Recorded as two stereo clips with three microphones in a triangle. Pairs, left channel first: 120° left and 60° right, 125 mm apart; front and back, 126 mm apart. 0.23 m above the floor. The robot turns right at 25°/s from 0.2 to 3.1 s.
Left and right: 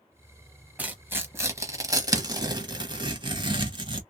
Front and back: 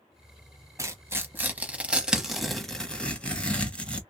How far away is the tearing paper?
About 0.8 m.